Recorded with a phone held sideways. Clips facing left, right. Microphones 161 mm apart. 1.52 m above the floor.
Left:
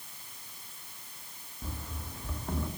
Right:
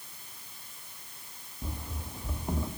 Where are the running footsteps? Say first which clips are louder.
Right 2 dB; 15° right (ahead or behind), 4 m.